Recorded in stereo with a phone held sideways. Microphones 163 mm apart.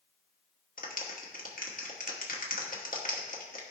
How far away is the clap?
About 1.4 m.